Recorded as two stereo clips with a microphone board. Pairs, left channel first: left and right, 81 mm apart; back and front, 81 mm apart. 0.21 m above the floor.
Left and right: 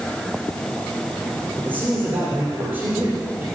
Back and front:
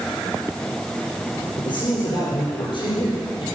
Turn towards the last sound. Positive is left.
turn(degrees=-160)